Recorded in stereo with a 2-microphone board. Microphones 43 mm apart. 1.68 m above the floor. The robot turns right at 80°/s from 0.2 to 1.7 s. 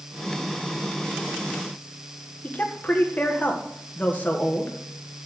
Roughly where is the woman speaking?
Left.